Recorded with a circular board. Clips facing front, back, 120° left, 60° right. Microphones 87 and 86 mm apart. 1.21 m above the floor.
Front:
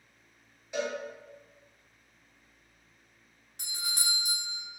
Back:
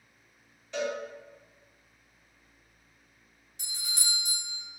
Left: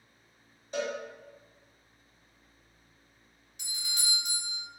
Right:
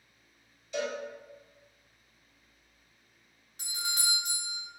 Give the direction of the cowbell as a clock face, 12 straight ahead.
9 o'clock.